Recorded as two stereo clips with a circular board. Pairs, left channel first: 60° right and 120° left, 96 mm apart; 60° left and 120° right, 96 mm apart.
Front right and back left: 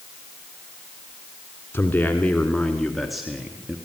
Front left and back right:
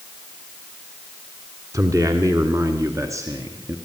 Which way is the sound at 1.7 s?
110° right.